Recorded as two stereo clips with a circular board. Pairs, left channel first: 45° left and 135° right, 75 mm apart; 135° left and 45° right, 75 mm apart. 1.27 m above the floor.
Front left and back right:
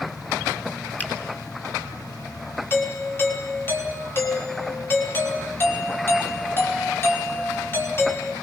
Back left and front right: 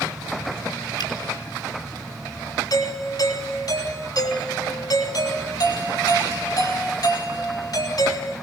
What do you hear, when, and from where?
1.0 s a finger snap: 110° left, 8 m
2.7 s a doorbell: 105° left, 5 m